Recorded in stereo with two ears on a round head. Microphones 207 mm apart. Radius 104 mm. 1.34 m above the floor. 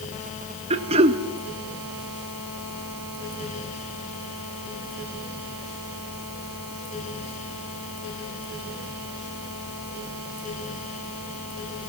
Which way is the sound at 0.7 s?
25° right (ahead or behind).